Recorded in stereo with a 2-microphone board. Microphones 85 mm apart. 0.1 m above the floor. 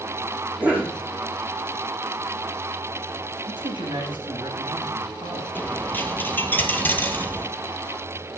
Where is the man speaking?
70° right (ahead or behind), 5.5 m.